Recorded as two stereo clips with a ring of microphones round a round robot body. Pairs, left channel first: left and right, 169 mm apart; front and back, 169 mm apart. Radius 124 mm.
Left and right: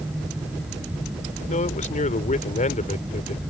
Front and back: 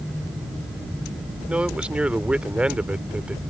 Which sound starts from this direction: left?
A man speaking, at 1.5 s.